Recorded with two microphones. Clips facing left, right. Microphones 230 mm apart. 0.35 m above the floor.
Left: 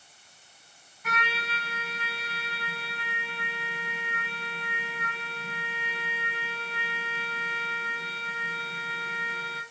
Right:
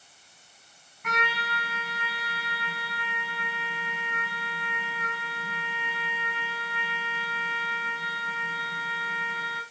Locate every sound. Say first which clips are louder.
1.0 s a trumpet: right 3 dB; 70° right (ahead or behind), 3.5 m